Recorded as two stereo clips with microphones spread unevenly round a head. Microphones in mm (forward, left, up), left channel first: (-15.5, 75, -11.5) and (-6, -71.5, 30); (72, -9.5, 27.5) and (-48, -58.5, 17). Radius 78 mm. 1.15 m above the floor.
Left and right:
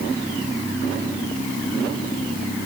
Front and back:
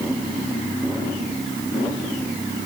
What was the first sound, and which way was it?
Only background noise.